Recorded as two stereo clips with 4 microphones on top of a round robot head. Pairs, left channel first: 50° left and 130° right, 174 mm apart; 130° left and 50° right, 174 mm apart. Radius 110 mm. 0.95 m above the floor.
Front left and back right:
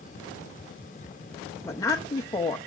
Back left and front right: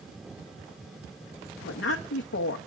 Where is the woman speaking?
120° left, 0.8 m.